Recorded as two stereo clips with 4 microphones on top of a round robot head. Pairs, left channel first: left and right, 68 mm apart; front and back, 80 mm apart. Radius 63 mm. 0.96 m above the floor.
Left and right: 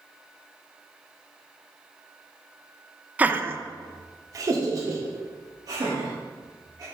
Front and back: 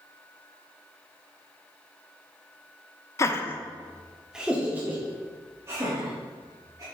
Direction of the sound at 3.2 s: 35° right.